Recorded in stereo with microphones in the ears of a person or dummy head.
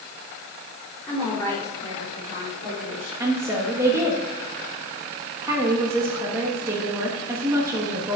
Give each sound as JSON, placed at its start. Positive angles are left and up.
{"t": 1.0, "sound": "a woman speaking", "side_deg": 5, "distance_m": 3.5}
{"t": 3.2, "sound": "a woman speaking", "side_deg": -15, "distance_m": 1.5}